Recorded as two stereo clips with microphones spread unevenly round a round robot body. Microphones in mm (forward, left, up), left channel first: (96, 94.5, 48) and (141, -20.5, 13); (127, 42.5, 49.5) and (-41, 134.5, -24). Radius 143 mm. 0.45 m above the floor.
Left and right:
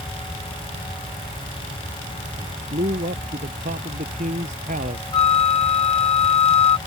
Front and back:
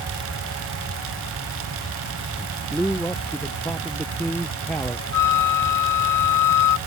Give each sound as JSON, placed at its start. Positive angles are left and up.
{"t": 2.4, "sound": "a man speaking", "azimuth_deg": -115}
{"t": 5.1, "sound": "a flute", "azimuth_deg": 65}